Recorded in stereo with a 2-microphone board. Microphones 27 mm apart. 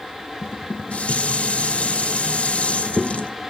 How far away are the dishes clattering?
About 0.8 m.